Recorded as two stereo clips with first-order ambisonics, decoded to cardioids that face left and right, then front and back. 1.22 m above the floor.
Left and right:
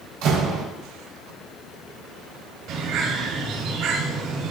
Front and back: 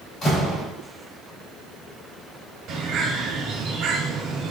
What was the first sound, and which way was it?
A door slam, 65° right.